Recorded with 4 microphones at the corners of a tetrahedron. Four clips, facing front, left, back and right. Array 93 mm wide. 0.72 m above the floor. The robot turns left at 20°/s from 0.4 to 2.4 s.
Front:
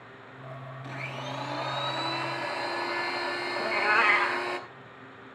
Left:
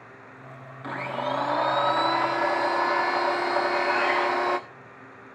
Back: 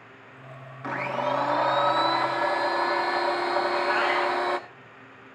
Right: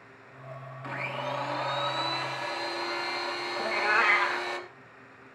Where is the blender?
155° left, 1.0 m; by 4.6 s 125° left, 1.0 m.